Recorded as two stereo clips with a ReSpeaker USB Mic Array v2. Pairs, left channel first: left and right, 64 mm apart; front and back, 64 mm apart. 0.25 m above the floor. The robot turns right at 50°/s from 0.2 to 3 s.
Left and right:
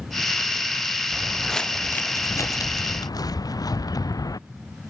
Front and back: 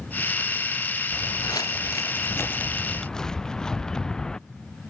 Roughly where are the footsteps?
Ahead.